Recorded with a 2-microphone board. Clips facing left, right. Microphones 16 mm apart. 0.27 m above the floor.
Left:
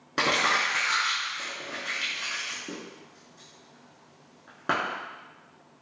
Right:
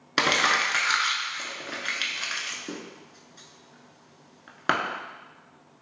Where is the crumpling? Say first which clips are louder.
Right 2 dB; 50° right (ahead or behind), 0.6 m.